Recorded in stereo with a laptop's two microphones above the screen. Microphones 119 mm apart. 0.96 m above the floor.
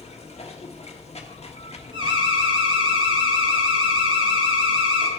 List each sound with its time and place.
0.0 s running water: 65° left (ahead or behind), 1.4 m
1.9 s an alarm: 45° right (ahead or behind), 2 m